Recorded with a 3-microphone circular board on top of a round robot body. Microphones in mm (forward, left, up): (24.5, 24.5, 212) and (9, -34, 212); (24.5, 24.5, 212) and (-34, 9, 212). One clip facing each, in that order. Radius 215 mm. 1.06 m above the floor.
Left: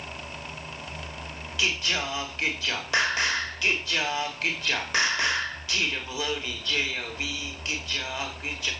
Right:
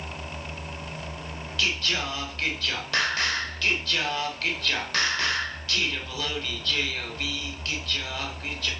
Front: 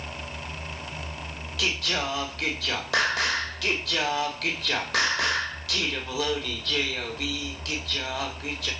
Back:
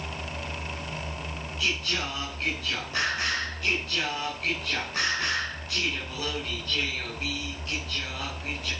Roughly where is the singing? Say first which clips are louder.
Even, front 2 dB; ahead.